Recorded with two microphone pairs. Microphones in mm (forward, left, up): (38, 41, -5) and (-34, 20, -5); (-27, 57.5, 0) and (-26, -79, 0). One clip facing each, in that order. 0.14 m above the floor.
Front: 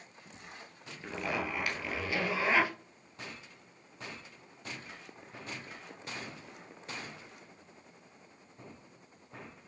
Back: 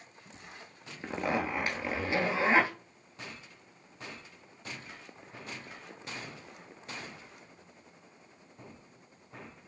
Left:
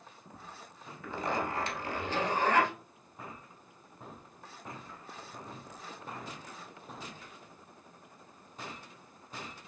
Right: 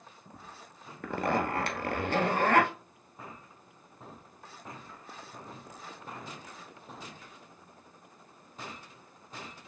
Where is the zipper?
105° right, 1.0 m.